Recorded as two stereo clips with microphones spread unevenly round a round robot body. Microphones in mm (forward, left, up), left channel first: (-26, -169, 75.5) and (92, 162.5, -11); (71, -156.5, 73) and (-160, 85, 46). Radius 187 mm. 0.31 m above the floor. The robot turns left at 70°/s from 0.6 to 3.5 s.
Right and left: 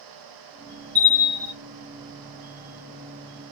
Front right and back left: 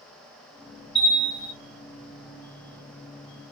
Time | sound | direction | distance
0.9 | a bell | 20° left | 1.3 m